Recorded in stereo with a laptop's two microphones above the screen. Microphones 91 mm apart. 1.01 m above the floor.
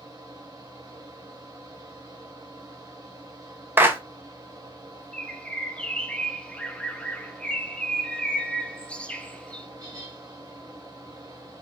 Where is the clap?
25° right (ahead or behind), 0.7 m.